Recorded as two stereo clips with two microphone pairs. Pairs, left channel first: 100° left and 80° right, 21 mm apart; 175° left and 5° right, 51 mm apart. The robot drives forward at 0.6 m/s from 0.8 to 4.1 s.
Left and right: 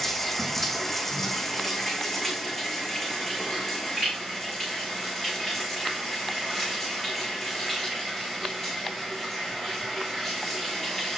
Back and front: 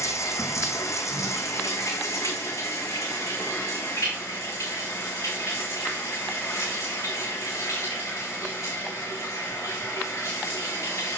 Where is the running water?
175° right, 3 m.